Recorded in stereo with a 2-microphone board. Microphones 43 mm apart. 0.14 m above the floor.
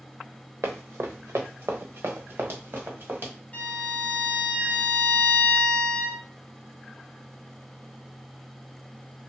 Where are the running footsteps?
85° right, 1.0 m; by 3.3 s 50° right (ahead or behind), 1.9 m.